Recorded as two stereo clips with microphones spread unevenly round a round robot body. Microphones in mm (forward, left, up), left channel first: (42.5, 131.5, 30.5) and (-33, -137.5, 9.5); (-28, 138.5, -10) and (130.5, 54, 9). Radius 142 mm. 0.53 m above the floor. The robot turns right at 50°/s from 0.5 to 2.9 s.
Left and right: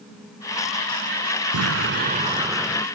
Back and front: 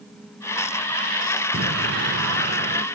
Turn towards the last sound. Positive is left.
turn(degrees=0)